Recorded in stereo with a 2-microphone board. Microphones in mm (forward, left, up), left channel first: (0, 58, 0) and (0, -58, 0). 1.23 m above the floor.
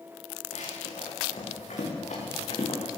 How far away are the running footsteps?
About 7.5 m.